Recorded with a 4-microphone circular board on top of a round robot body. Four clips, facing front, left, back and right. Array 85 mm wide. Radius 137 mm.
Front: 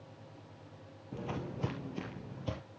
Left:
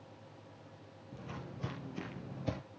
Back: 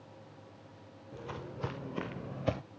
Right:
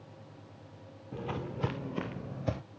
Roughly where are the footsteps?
Ahead right.